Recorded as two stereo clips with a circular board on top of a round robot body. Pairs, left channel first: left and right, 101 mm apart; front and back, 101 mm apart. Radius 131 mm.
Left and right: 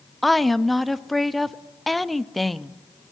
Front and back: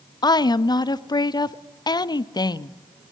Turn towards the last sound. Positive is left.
turn(degrees=0)